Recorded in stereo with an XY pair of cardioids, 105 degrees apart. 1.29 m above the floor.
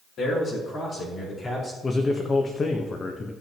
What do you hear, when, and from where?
0.2 s a man speaking: 55° left, 4.5 m; by 1.7 s 25° left, 5 m
1.8 s a man speaking: 35° left, 1.2 m